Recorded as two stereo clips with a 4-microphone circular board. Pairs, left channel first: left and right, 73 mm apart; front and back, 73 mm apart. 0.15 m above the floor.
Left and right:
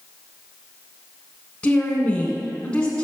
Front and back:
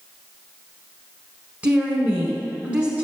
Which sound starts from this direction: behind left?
A woman speaking, at 1.6 s.